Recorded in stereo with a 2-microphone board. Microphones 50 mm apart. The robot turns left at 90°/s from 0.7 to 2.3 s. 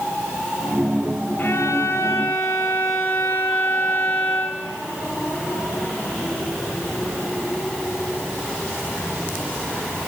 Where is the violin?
145° left, 4 m; by 4.6 s 65° left, 4 m.